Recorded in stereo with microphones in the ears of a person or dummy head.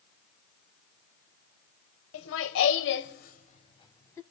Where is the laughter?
75° left (ahead or behind), 1.3 m; by 4.2 s 10° left (ahead or behind), 1.2 m.